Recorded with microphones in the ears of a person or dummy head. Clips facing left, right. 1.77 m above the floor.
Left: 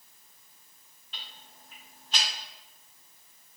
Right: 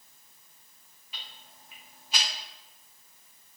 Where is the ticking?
10° right (ahead or behind), 1.2 m.